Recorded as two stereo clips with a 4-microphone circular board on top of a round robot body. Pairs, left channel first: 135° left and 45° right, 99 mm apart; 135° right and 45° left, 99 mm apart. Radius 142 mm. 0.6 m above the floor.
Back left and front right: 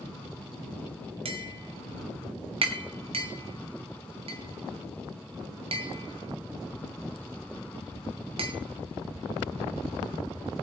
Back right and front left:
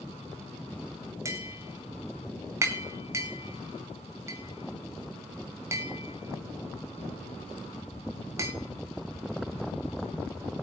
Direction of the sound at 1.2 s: 15° right.